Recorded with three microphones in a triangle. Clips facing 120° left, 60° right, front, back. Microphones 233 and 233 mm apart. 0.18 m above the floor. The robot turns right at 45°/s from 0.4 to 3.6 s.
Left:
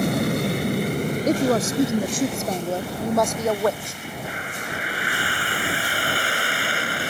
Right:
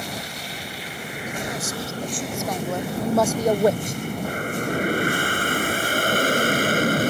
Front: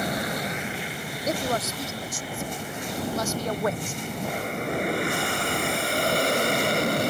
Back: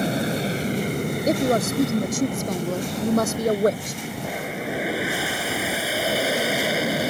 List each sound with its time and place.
0.0 s an aircraft: 125° left; by 7.1 s 95° right
1.3 s a woman speaking: 125° left; by 4.0 s 130° right